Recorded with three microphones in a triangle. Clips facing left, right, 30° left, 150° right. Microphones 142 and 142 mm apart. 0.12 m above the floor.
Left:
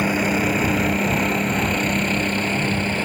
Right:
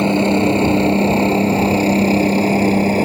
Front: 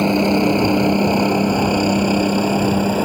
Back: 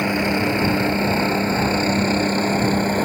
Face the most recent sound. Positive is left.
turn(degrees=-50)